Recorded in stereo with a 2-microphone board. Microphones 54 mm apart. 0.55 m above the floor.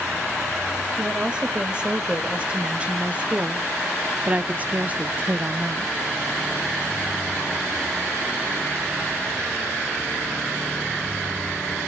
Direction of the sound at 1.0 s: 15° right (ahead or behind).